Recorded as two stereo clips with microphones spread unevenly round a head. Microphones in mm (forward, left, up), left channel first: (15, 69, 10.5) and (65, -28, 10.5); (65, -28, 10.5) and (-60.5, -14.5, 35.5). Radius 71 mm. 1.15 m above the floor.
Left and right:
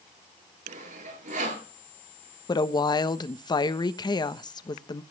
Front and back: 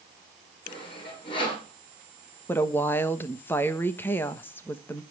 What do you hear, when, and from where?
0.7 s sawing: 55° right, 9 m
2.5 s a woman speaking: 65° left, 1.1 m